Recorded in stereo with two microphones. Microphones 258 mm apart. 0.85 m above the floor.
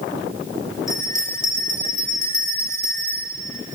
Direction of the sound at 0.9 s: 15° left (ahead or behind).